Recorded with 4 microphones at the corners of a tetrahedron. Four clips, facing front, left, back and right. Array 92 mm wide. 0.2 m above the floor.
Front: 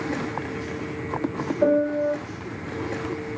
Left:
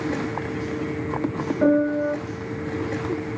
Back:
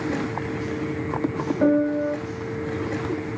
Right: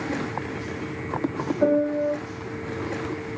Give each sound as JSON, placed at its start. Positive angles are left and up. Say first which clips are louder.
{"t": 1.6, "sound": "a piano", "louder": "left 2 dB, even", "azimuth_deg": 150, "distance_m": 2.0}